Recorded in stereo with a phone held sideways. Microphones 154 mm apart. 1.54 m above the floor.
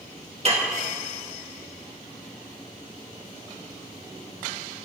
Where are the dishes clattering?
45° right (ahead or behind), 1.3 m.